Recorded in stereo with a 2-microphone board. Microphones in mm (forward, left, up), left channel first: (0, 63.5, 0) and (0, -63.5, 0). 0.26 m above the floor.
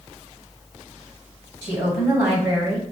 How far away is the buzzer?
I don't hear a buzzer.